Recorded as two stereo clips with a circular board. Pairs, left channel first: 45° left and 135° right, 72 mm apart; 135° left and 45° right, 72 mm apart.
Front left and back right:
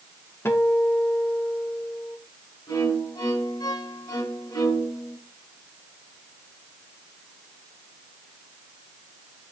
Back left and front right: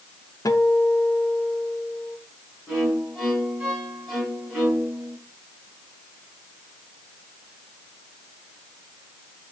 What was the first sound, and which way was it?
A guitar, 100° left.